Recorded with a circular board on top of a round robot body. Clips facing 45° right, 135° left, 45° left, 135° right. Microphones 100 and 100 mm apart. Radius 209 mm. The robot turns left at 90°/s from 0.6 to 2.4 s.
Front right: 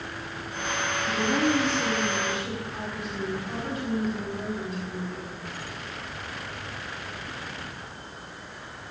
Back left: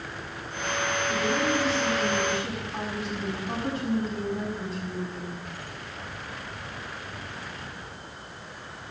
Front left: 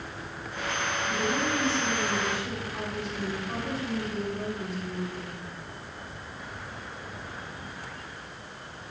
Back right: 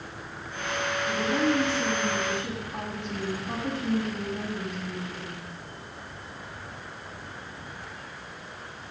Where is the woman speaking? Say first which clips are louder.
Front right 3 dB, back right 4 dB; 50° right, 6 m; by 5.5 s 170° right, 6 m.